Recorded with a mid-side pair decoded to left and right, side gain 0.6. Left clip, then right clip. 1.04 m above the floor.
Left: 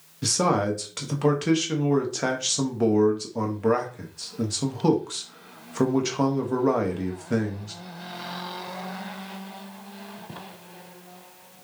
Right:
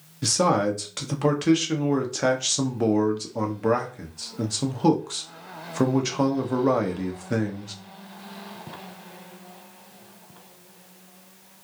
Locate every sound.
0.2 s a man speaking: 5° right, 0.8 m